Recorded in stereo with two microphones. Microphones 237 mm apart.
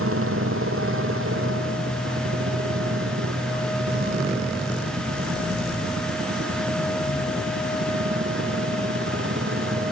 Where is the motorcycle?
65° right (ahead or behind); by 9.9 s 55° right (ahead or behind).